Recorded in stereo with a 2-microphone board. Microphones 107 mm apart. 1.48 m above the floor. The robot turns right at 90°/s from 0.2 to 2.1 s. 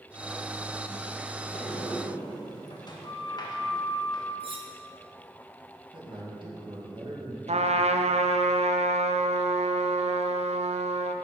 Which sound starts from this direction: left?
A sliding door, at 1.5 s.